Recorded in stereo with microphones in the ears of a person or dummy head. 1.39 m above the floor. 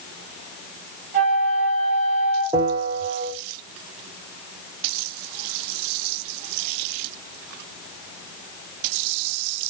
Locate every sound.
1.1 s a flute: 40° right (ahead or behind), 7 m
2.5 s a bell: 25° right (ahead or behind), 2.5 m